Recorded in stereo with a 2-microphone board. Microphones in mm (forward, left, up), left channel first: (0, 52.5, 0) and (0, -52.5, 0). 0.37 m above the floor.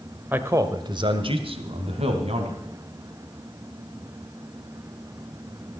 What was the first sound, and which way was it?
A man speaking, 15° right (ahead or behind).